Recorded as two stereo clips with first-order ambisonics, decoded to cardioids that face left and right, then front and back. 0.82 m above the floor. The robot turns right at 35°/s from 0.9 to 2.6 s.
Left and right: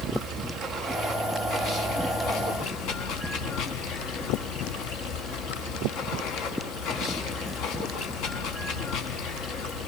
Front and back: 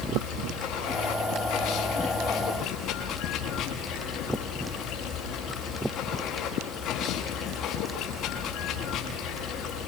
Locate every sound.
0.0 s running water: 5° right, 6.5 m; by 9.9 s 55° left, 6.5 m